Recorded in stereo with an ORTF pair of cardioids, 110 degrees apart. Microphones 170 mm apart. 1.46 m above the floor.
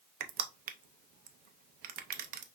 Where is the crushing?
60° right, 0.6 m.